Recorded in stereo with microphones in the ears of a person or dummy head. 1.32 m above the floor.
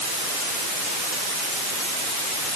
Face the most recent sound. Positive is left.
No sound to turn to.